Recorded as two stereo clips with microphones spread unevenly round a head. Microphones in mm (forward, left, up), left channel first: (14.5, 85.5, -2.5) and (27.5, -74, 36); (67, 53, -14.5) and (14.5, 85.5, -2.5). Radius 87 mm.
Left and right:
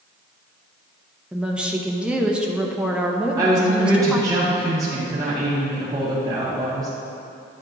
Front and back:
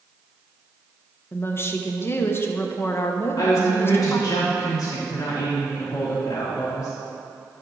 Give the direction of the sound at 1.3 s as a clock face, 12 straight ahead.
12 o'clock.